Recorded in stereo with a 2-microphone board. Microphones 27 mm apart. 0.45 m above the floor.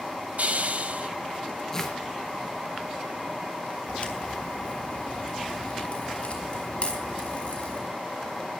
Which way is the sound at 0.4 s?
65° right (ahead or behind).